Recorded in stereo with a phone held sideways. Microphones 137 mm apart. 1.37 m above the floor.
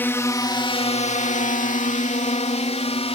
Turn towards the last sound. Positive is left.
turn(degrees=50)  # may be behind; listen again after turning